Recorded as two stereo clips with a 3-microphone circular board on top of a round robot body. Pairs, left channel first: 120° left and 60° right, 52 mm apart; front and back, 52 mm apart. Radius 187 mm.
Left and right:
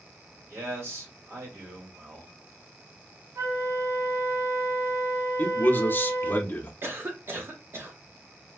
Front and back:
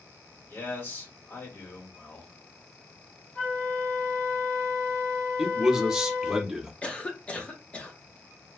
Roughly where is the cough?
Ahead right.